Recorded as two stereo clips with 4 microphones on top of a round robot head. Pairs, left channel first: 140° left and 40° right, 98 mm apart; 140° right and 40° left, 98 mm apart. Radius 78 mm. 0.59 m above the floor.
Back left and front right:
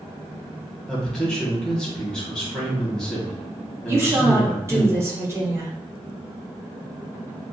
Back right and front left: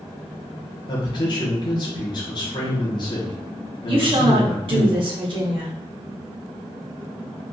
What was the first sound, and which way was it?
A man speaking, 140° right.